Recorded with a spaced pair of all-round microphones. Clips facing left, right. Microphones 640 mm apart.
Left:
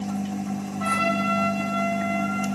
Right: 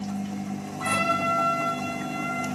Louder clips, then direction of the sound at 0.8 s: Left 3 dB; 70° left (ahead or behind).